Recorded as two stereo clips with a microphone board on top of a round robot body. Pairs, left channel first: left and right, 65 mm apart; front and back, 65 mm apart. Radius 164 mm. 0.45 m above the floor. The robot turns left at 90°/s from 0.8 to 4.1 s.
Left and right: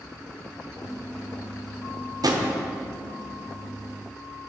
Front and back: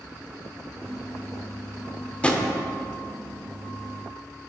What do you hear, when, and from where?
2.2 s a drawer: 70° right, 0.9 m; by 2.5 s 95° right, 0.9 m